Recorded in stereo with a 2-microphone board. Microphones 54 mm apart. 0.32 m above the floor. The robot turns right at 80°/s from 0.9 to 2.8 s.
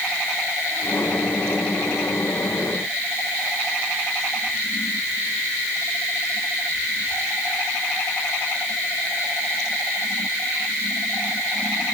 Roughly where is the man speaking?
No man speaking in this recording.